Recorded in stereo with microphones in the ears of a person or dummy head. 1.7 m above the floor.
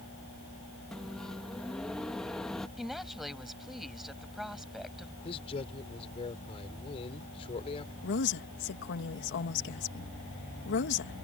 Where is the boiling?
I don't hear boiling.